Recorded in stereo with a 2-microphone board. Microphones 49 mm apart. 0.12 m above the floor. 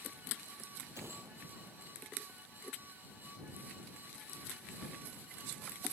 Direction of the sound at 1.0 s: 70° right (ahead or behind).